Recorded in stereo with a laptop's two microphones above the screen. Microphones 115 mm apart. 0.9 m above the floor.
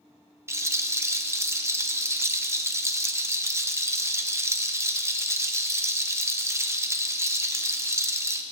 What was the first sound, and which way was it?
A rattle, 25° right (ahead or behind).